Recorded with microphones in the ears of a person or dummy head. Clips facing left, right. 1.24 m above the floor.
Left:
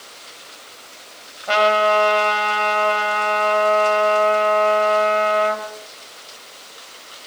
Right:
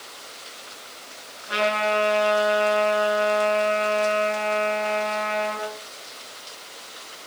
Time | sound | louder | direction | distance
1.5 | a trumpet | left 7 dB | 85° left | 5.5 m